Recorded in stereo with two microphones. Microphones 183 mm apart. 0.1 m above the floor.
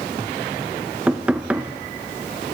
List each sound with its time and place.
1.1 s knocking: 5° right (ahead or behind), 0.8 m